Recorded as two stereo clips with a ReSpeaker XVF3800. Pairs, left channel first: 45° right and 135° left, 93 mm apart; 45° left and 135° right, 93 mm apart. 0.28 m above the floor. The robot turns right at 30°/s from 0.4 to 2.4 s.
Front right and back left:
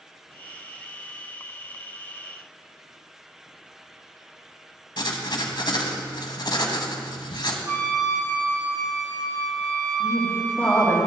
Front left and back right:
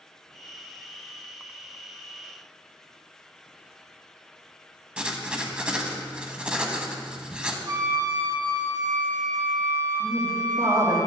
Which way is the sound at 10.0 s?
110° right.